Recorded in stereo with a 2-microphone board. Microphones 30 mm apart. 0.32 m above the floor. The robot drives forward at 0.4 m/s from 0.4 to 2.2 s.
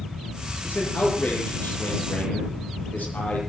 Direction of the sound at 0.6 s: 80° left.